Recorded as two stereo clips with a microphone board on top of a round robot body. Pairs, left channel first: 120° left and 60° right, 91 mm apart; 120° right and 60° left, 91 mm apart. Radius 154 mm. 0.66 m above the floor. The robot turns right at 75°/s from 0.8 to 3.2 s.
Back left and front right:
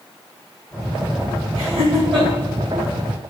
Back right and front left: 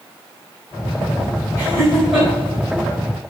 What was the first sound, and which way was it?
Laughter, 70° right.